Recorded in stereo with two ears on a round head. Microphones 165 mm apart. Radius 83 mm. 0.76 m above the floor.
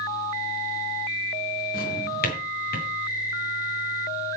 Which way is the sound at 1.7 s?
50° left (ahead or behind).